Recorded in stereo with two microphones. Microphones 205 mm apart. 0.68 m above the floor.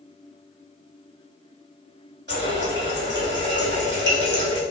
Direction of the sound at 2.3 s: 55° right (ahead or behind).